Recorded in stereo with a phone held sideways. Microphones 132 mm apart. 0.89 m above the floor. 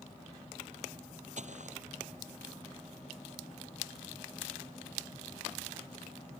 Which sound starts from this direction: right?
Footsteps, at 1.4 s.